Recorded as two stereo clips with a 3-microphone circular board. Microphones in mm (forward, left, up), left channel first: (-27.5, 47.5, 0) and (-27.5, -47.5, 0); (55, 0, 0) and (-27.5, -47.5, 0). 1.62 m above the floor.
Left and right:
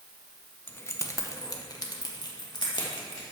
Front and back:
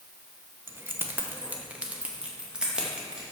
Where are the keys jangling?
155° left, 0.7 m; by 3.2 s 130° left, 2 m.